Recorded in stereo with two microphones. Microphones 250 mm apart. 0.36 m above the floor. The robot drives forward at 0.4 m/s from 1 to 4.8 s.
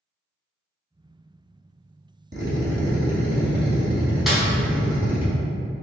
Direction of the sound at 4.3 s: Centre (ahead or behind).